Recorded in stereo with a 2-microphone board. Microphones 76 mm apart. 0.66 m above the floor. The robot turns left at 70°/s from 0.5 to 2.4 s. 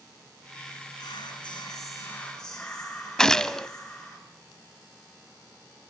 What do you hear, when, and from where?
1.0 s whispering: 110° left, 7.5 m; by 4.2 s 10° left, 7.5 m
3.2 s a gunshot: 10° left (ahead or behind), 0.6 m